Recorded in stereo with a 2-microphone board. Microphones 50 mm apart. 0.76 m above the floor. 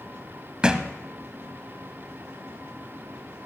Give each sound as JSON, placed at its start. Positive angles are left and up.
{"t": 0.6, "sound": "a thud", "side_deg": -20, "distance_m": 0.9}